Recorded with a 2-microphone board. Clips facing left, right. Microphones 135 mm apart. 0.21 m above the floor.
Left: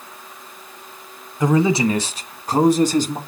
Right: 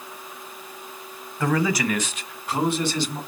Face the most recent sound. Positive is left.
turn(degrees=45)  # may be behind; listen again after turning